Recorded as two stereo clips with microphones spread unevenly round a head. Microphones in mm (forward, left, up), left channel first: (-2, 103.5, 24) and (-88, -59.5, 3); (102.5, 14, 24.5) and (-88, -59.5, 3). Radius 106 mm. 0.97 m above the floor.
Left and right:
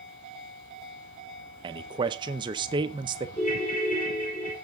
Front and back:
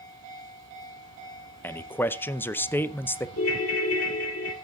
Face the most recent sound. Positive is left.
turn(degrees=0)